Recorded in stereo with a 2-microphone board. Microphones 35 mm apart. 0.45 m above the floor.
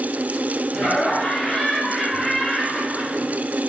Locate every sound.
0.7 s laughter: 45° left (ahead or behind), 2.5 m; by 3.3 s 10° left (ahead or behind), 2.5 m